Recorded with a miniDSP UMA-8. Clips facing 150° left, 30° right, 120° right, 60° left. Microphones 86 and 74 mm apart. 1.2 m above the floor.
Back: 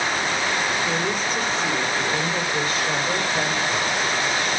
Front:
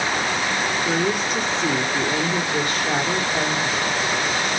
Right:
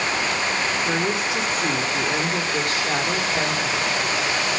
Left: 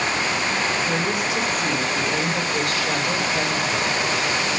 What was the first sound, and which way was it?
A woman speaking, 55° right.